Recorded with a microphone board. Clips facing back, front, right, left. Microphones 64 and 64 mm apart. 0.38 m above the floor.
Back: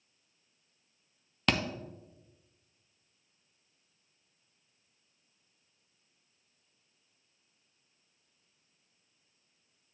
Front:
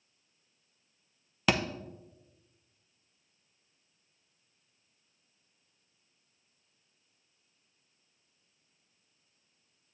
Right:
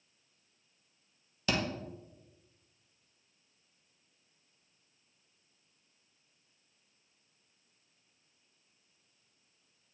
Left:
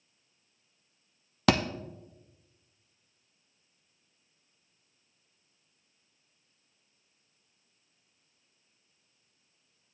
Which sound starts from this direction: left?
A thud, at 1.5 s.